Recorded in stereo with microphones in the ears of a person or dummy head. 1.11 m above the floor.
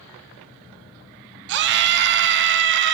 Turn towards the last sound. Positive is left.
turn(degrees=-60)  # may be behind; listen again after turning